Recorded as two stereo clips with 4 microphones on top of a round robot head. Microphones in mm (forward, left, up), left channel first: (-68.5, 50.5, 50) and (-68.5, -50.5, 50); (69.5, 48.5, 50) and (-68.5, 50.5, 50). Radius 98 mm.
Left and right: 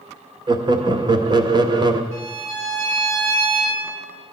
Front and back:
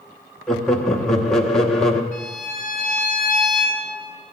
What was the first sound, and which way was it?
Laughter, 85° right.